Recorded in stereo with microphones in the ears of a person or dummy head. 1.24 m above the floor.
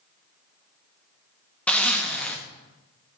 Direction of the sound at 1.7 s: 5° left (ahead or behind).